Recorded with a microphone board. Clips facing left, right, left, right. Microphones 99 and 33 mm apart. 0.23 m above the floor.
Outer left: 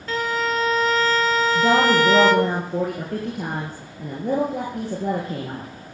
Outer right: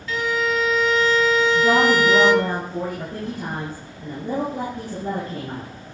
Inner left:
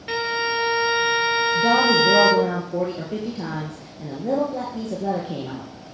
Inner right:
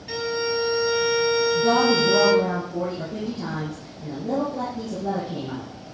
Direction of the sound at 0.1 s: 40° left (ahead or behind).